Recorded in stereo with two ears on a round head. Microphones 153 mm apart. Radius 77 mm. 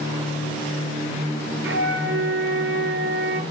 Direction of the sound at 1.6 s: 70° right (ahead or behind).